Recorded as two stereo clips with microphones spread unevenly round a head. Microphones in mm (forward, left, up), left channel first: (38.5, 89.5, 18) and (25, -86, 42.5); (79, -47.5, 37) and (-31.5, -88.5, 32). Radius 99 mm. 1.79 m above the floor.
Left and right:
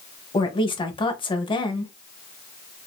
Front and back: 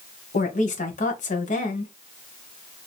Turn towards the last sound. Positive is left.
turn(degrees=25)